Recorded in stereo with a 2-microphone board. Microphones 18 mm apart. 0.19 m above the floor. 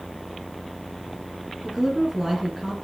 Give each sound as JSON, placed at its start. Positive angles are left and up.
{"t": 1.6, "sound": "a woman speaking", "side_deg": 0, "distance_m": 4.0}